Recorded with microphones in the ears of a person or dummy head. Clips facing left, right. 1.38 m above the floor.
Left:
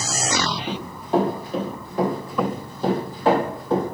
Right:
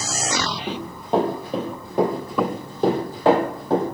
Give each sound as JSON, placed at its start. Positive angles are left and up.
{"t": 0.7, "sound": "running footsteps", "side_deg": -20, "distance_m": 1.7}